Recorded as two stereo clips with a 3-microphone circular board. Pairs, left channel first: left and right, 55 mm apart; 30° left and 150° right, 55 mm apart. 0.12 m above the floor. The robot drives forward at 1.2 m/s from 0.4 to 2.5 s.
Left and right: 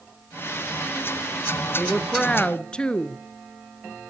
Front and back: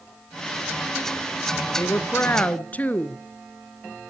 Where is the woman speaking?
15° left, 1.9 m; by 3.2 s 40° left, 1.3 m.